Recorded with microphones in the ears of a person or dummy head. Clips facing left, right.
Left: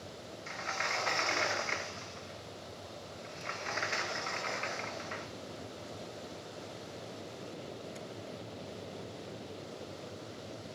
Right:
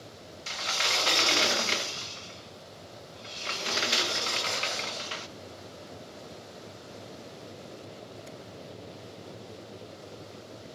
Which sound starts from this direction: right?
A sliding door, at 0.5 s.